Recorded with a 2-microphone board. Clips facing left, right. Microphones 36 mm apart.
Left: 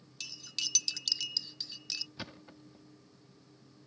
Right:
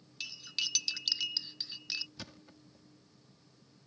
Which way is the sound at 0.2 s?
15° right (ahead or behind).